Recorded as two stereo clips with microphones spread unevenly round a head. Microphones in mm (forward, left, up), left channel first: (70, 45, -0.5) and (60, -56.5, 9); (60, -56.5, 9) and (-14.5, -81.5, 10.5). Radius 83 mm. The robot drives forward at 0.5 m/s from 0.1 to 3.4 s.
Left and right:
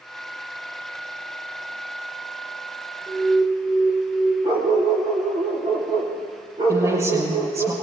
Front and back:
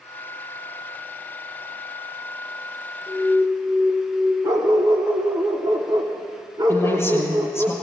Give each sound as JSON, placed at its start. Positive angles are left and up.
{"t": 3.1, "sound": "an alarm", "azimuth_deg": -25, "distance_m": 1.9}
{"t": 4.4, "sound": "a dog barking", "azimuth_deg": -140, "distance_m": 2.0}
{"t": 6.7, "sound": "a woman speaking", "azimuth_deg": -40, "distance_m": 7.0}